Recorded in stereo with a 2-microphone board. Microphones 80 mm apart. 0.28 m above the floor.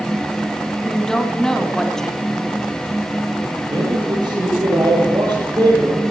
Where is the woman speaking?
5° left (ahead or behind), 2.5 m.